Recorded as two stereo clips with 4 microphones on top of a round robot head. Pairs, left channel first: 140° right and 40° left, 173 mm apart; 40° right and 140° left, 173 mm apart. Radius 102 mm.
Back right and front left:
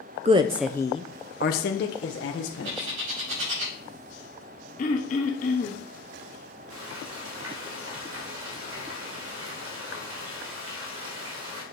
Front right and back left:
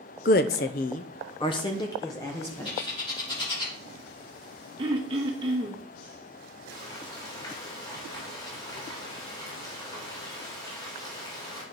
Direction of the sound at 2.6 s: 25° left.